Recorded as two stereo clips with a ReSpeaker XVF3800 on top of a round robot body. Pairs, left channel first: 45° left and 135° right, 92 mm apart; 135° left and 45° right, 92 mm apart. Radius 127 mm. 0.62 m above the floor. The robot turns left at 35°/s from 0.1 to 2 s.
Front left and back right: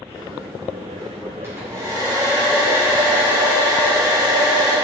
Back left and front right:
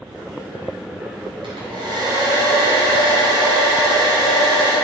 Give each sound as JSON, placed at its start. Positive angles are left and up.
{"t": 1.4, "sound": "a hair dryer", "azimuth_deg": -70, "distance_m": 3.5}